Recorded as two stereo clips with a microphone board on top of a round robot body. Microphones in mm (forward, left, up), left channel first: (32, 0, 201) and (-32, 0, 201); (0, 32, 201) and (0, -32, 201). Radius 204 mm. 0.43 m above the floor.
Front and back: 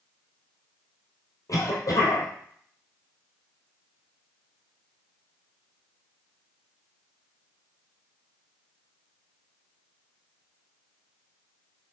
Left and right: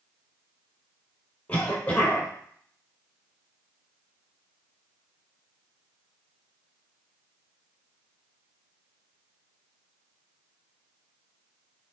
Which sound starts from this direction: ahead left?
A cough, at 1.5 s.